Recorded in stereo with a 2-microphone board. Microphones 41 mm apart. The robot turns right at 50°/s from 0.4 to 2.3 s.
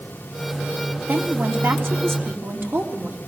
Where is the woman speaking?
130° right, 3.5 m; by 3.2 s 70° right, 3.5 m.